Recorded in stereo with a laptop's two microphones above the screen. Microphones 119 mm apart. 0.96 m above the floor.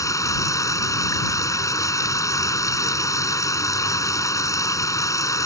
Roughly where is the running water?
Left.